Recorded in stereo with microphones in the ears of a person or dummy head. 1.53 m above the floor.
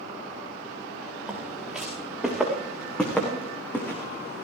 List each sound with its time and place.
1.3 s footsteps: centre (ahead or behind), 6 m; by 4.5 s 15° left (ahead or behind), 5.5 m